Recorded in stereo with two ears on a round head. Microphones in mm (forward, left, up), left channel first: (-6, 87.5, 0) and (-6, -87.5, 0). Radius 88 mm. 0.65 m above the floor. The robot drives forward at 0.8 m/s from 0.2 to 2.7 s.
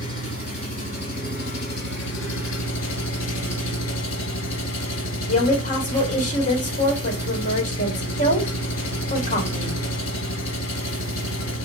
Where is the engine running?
30° left (ahead or behind), 2.5 m; by 11.7 s 70° left (ahead or behind), 1.4 m.